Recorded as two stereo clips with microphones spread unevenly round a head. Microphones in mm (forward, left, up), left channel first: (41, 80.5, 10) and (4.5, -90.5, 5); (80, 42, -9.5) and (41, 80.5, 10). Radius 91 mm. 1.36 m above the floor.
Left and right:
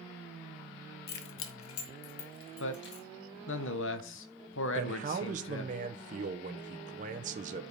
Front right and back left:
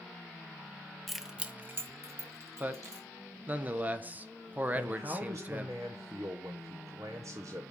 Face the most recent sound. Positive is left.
turn(degrees=-150)